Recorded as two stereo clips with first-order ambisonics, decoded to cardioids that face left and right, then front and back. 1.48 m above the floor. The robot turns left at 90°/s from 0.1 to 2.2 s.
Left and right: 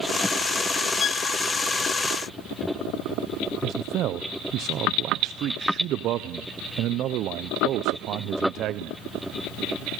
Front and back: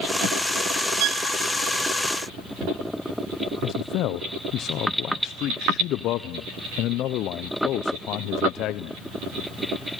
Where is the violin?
155° left, 1.1 m; by 1.3 s 130° left, 1.1 m.